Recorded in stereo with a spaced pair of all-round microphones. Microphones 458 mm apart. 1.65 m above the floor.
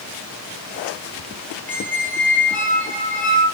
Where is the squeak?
5° left (ahead or behind), 2.5 m.